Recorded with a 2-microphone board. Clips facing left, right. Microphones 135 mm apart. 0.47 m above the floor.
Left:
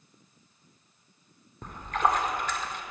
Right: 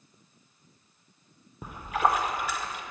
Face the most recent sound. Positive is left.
turn(degrees=-10)  # may be behind; listen again after turning